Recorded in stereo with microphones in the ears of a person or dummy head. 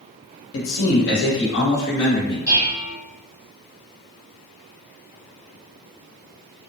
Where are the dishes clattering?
5° right (ahead or behind), 1.6 m.